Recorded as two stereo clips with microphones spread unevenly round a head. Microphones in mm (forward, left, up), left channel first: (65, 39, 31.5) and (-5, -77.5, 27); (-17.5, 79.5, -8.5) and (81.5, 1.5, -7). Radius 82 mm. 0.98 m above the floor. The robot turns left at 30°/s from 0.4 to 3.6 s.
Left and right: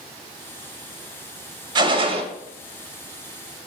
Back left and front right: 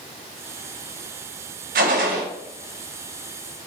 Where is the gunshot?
65° right, 0.6 m; by 2.2 s 80° right, 0.6 m.